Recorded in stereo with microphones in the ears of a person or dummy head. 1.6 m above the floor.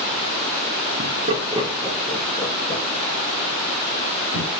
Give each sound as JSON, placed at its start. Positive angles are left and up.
{"t": 1.0, "sound": "laughter", "side_deg": -40, "distance_m": 1.2}